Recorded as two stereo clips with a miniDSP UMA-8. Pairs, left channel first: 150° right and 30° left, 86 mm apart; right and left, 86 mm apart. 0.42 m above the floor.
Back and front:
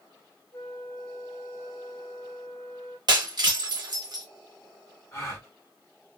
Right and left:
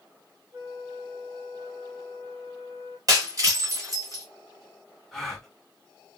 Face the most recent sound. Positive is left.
turn(degrees=-175)